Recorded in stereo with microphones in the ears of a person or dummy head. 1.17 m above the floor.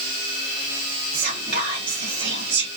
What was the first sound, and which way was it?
Whispering, 60° right (ahead or behind).